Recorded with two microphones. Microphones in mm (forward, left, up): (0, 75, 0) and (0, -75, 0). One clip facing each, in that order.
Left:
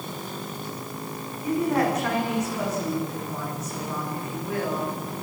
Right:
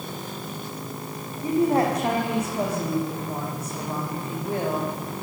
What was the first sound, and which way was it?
A woman speaking, 30° right (ahead or behind).